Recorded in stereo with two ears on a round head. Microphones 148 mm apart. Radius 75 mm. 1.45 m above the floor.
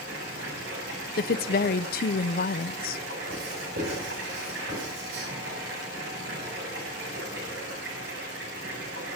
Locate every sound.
0.0 s running water: 70° right (ahead or behind), 9 m
1.2 s a woman speaking: 55° left (ahead or behind), 0.7 m
3.3 s writing: 75° right (ahead or behind), 8.5 m